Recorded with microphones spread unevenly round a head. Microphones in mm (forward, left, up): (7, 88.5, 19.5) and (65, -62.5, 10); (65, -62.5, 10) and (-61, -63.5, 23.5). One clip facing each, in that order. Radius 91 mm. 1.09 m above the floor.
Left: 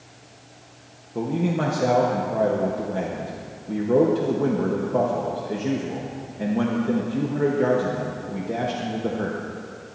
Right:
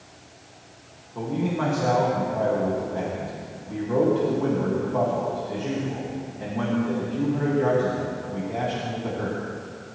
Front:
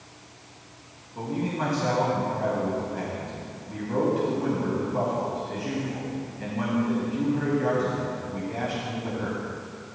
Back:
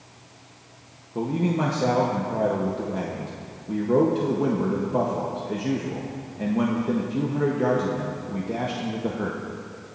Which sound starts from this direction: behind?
A man speaking, at 1.1 s.